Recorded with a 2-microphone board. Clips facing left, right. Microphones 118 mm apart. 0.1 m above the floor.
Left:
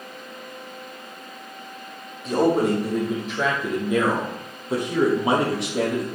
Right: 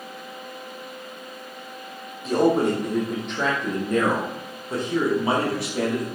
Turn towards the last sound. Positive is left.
turn(degrees=25)  # may be behind; listen again after turning